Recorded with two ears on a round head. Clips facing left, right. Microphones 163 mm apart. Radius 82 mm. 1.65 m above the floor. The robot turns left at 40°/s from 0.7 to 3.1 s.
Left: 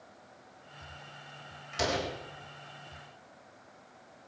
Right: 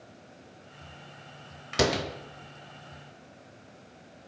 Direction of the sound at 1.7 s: 75° right (ahead or behind).